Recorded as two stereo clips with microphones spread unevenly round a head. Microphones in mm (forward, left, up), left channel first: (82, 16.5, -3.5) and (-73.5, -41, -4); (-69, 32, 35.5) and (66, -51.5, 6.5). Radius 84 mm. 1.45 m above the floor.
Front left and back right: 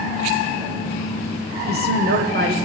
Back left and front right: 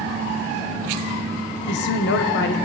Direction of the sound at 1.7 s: 165° left.